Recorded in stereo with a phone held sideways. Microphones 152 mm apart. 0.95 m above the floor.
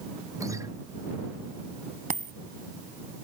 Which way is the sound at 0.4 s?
20° right (ahead or behind).